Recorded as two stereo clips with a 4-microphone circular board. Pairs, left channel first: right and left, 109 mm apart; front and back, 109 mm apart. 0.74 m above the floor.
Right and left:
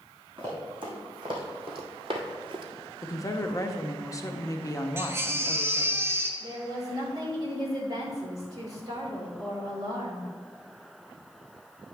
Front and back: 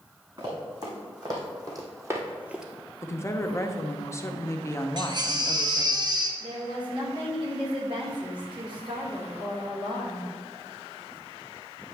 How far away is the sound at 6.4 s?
About 2.5 m.